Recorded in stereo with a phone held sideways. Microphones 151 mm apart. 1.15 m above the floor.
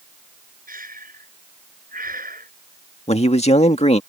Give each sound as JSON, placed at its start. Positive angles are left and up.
{"t": 0.7, "sound": "breathing", "side_deg": -75}
{"t": 3.1, "sound": "a man speaking", "side_deg": 45}